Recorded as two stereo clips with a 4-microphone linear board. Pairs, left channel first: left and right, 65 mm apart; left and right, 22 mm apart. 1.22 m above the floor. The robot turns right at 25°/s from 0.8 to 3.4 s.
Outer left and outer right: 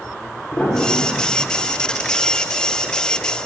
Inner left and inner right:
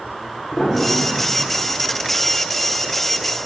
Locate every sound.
0.5 s a piano: 15° left (ahead or behind), 1.1 m; by 1.4 s 25° left (ahead or behind), 1.1 m